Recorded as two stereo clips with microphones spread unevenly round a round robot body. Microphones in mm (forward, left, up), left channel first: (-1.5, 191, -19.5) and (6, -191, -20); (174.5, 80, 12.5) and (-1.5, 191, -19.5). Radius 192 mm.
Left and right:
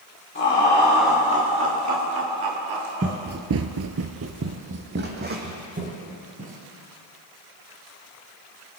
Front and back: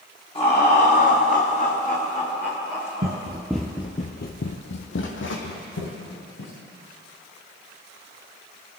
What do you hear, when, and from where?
0.3 s laughter: 30° left, 1.6 m; by 3.2 s 110° right, 2.5 m
3.0 s running footsteps: 160° right, 0.8 m; by 6.6 s 20° right, 3 m